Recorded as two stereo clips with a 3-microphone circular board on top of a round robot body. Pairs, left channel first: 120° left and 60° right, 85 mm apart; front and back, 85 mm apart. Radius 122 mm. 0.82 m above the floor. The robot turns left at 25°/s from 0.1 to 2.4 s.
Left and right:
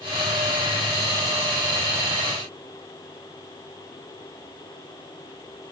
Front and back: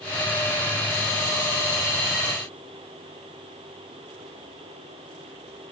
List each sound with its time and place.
Only background noise.